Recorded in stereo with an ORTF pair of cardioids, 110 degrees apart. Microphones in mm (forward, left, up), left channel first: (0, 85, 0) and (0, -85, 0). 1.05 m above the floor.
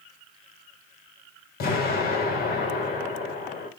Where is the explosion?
65° left, 4.5 m.